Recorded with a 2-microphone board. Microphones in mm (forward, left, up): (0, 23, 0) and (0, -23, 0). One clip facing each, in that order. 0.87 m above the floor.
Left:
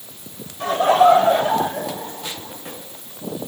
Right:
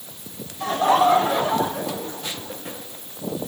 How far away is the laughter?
About 3 m.